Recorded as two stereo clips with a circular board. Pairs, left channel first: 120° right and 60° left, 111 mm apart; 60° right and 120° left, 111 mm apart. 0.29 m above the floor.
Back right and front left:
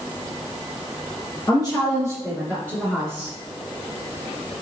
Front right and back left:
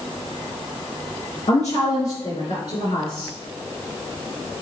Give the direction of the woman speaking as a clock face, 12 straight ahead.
2 o'clock.